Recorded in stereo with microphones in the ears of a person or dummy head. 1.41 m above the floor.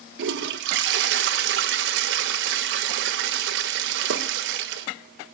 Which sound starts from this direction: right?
A toilet flushing, at 0.2 s.